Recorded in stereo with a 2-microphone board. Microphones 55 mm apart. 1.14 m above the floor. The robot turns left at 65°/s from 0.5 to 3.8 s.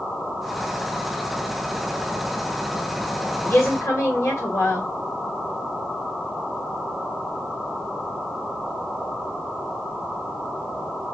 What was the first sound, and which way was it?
A woman speaking, 35° left (ahead or behind).